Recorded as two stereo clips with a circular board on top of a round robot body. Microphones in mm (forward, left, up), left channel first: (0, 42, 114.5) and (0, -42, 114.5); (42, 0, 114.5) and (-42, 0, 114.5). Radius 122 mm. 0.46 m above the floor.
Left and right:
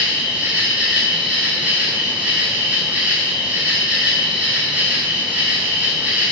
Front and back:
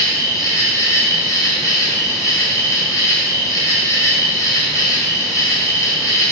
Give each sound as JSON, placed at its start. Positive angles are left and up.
{"t": 0.0, "sound": "an insect", "azimuth_deg": -25, "distance_m": 0.8}